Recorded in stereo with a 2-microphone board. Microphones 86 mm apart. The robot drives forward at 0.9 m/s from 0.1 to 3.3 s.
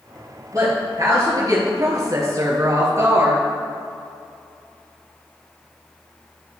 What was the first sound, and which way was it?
A woman speaking, 35° right (ahead or behind).